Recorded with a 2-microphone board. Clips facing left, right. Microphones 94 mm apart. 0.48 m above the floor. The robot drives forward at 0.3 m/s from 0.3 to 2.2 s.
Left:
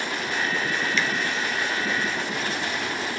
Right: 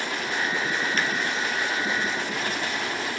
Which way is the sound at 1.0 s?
45° right (ahead or behind).